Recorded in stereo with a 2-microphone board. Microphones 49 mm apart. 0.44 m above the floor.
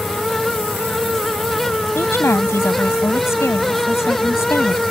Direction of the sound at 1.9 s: 65° left (ahead or behind).